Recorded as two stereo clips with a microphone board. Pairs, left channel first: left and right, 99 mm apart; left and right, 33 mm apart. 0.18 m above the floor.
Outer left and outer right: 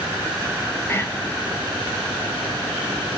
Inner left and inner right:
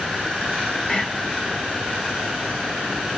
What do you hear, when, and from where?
0.9 s whispering: 25° left (ahead or behind), 1.3 m